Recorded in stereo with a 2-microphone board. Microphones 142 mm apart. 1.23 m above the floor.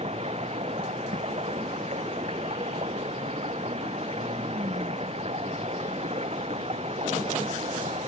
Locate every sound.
0.0 s running water: 45° right (ahead or behind)